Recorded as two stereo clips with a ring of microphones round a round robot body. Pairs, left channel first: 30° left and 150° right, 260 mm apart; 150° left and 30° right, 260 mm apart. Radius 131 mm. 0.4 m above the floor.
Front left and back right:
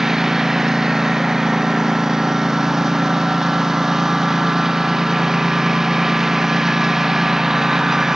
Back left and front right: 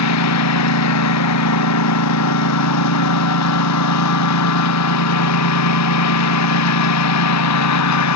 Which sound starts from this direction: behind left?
A lawn mower, at 0.0 s.